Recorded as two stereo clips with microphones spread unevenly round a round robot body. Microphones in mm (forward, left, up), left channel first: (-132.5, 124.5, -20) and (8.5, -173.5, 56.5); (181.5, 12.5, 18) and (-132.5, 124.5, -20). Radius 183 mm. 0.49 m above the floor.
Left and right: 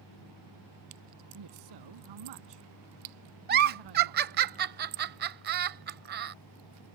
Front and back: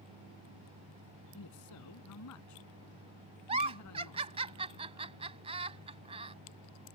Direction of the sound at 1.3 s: 65° right.